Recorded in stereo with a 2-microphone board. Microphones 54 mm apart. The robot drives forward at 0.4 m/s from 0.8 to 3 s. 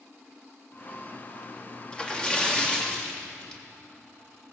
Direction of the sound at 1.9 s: 20° left (ahead or behind).